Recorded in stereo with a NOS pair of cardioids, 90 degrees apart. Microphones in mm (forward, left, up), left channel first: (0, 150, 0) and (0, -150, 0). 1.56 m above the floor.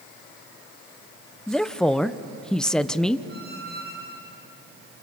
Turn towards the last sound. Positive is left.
turn(degrees=-35)